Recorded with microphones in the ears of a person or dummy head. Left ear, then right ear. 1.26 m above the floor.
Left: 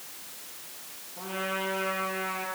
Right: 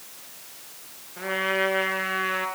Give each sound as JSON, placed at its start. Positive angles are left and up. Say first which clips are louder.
{"t": 1.2, "sound": "a trumpet", "louder": "right 7 dB", "side_deg": -55, "distance_m": 3.5}